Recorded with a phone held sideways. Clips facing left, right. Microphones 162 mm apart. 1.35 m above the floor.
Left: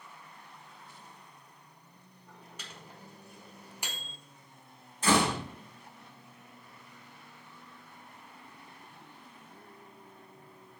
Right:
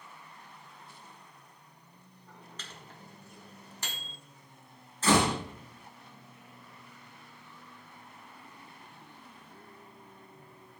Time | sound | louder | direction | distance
2.6 | a microwave | left 2 dB | 10° left (ahead or behind) | 1.3 m
5.0 | a door slam | right 1 dB | 15° left (ahead or behind) | 4 m